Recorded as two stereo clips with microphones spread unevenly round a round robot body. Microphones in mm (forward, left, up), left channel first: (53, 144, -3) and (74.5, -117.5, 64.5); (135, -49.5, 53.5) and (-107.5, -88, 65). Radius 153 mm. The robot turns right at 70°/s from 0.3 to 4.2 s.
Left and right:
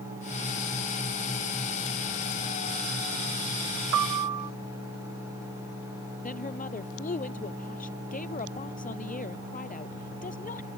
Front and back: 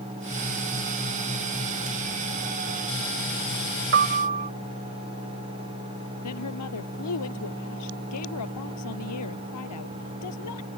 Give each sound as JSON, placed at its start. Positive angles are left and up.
{"t": 3.9, "sound": "a piano", "azimuth_deg": -135}
{"t": 6.2, "sound": "a woman speaking", "azimuth_deg": 35}